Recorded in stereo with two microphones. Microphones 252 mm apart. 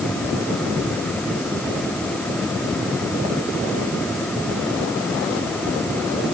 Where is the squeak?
I don't hear a squeak.